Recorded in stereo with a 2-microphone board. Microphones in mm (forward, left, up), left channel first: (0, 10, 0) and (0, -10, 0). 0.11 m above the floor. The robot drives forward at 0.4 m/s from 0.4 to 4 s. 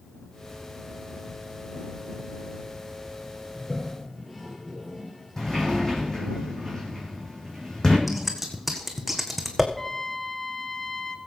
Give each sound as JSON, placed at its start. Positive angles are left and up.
{"t": 3.5, "sound": "a toilet flushing", "side_deg": 20, "distance_m": 2.5}
{"t": 5.4, "sound": "a sliding door", "side_deg": 25, "distance_m": 3.0}
{"t": 8.1, "sound": "scissors", "side_deg": 0, "distance_m": 1.6}
{"t": 9.8, "sound": "a trumpet", "side_deg": 20, "distance_m": 1.0}